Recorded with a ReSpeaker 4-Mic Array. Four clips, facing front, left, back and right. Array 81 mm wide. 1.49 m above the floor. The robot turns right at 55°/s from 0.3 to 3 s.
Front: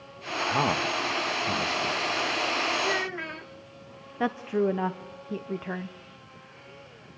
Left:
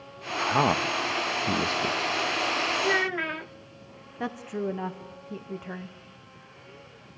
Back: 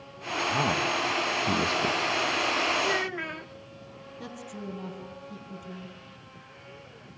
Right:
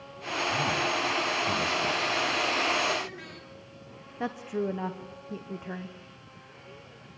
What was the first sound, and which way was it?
A man speaking, 65° left.